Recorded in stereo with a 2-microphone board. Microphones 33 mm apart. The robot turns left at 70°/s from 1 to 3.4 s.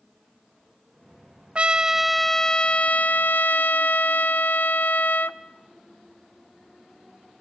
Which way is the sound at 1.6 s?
140° right.